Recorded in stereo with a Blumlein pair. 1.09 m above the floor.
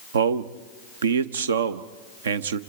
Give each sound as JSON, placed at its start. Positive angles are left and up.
{"t": 0.1, "sound": "a man speaking", "azimuth_deg": -65, "distance_m": 0.9}